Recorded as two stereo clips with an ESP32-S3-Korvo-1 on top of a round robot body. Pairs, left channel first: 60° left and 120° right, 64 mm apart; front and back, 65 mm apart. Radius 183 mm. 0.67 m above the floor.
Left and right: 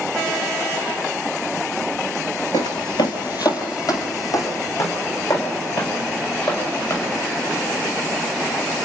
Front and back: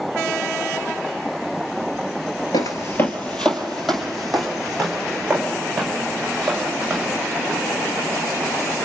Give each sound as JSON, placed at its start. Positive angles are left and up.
{"t": 2.5, "sound": "footsteps", "azimuth_deg": 25, "distance_m": 0.8}